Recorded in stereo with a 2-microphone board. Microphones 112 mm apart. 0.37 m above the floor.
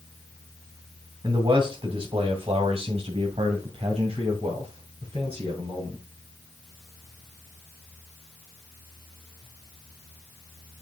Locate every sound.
1.2 s a man speaking: 45° right (ahead or behind), 1.4 m; by 6.0 s 55° right (ahead or behind), 3 m